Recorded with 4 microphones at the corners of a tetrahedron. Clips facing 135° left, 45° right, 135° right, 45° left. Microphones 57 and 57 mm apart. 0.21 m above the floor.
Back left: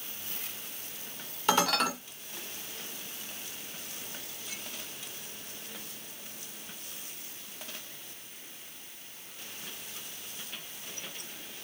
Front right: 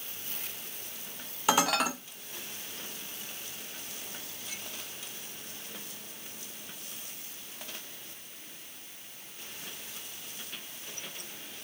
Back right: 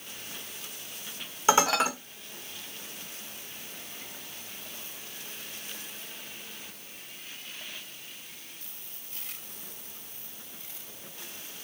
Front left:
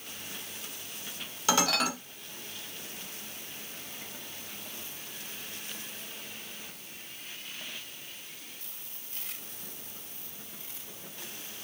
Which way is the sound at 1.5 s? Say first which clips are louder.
Even, back right 4 dB; 120° right.